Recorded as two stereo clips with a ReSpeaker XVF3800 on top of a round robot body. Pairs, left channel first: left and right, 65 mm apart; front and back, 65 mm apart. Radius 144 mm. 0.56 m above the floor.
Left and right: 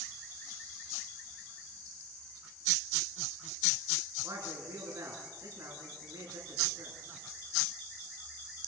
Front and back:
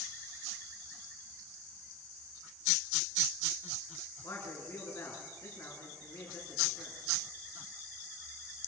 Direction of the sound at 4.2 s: 50° right.